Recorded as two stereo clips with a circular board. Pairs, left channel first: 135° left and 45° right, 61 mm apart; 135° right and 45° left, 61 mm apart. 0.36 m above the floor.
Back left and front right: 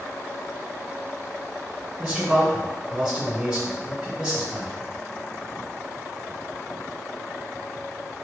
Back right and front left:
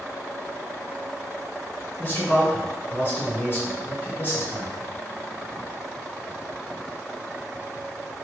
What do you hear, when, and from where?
2.0 s a man speaking: 115° right, 1.7 m